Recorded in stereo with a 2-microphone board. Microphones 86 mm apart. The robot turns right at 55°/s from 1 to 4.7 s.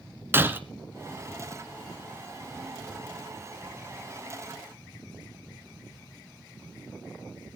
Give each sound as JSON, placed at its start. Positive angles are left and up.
{"t": 0.3, "sound": "breaking glass", "side_deg": -25, "distance_m": 1.4}